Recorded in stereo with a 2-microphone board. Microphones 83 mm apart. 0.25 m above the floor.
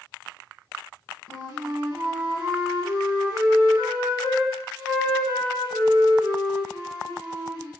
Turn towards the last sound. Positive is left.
turn(degrees=-45)  # may be behind; listen again after turning